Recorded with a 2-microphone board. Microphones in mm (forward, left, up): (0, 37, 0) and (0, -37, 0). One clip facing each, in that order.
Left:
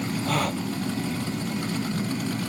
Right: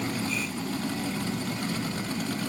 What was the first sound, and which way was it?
A gasp, 65° left (ahead or behind).